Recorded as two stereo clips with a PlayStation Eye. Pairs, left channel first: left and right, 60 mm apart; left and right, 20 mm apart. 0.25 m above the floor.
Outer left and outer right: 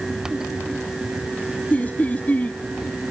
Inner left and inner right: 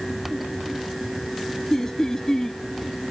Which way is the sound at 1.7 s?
25° left (ahead or behind).